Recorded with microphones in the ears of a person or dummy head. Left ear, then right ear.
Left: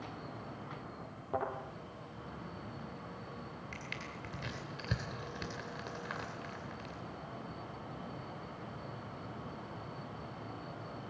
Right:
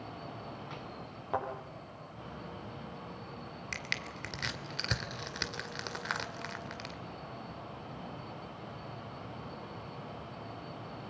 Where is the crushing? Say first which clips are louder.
Right 8 dB; 70° right (ahead or behind), 2.5 m.